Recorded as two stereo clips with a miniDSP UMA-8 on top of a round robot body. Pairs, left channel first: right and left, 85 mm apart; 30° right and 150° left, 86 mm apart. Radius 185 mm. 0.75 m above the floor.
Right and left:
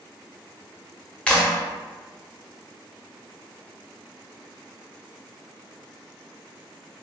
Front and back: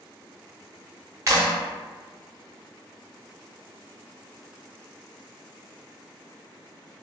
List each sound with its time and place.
1.3 s a clap: 165° right, 0.8 m